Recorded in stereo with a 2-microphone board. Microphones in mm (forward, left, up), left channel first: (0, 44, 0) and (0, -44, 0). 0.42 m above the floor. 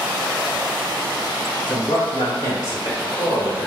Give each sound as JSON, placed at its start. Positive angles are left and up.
{"t": 1.7, "sound": "a man speaking", "side_deg": 60, "distance_m": 1.7}